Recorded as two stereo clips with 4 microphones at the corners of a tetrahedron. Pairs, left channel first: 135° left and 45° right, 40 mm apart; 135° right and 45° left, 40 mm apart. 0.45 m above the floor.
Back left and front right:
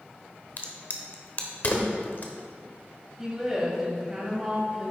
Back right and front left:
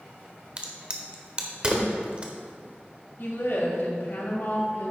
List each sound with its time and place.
0.6 s a crack: 105° left, 1.1 m
3.2 s a woman speaking: 120° right, 3 m